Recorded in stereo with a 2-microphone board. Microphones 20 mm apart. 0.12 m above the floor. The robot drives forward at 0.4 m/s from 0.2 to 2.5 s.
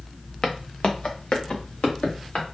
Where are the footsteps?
30° left (ahead or behind), 0.9 m; by 2.5 s 65° left (ahead or behind), 2 m.